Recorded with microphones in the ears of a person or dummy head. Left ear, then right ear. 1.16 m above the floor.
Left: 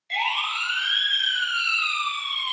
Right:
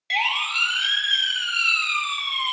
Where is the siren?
75° right (ahead or behind), 2.5 m; by 2.5 s 65° right (ahead or behind), 2 m.